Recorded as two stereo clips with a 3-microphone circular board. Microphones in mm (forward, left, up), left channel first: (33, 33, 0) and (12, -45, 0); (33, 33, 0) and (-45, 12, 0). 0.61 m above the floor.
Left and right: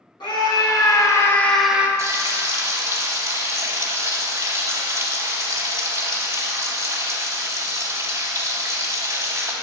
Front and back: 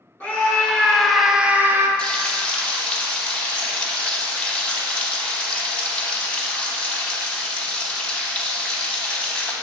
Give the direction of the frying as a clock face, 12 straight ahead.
2 o'clock.